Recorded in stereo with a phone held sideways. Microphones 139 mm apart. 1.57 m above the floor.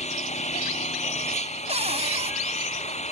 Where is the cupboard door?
50° right (ahead or behind).